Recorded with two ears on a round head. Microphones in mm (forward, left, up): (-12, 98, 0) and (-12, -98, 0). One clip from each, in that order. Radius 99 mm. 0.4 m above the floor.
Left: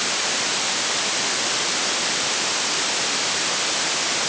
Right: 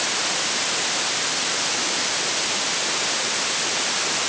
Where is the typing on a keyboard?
No typing on a keyboard in this recording.